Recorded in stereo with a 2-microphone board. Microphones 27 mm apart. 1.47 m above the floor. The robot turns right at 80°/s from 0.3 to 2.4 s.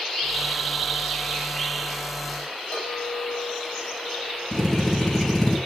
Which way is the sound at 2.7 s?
60° left (ahead or behind).